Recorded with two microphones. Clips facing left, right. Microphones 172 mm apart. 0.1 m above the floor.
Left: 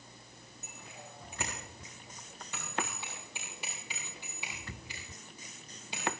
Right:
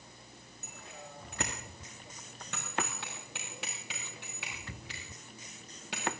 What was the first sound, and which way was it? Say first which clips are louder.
A bicycle bell: right 2 dB; 70° right (ahead or behind).